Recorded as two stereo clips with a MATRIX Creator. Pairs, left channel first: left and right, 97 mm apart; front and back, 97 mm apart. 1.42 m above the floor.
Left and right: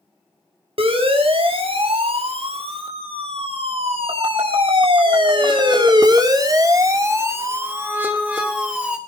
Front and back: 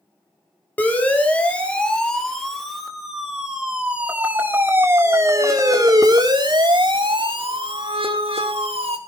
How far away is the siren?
About 4.5 m.